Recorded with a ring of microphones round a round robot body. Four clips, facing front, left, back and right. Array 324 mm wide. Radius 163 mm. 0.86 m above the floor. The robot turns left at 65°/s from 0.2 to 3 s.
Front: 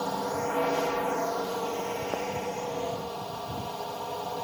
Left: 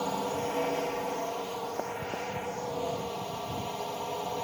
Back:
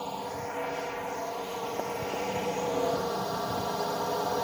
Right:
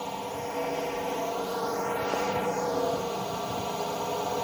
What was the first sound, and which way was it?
A drone, 40° left.